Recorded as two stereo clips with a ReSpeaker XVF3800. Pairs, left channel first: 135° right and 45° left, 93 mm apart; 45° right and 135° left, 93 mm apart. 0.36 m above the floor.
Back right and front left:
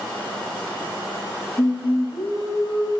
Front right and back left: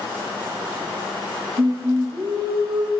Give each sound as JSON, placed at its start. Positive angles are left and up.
{"t": 1.6, "sound": "singing", "azimuth_deg": 165, "distance_m": 5.5}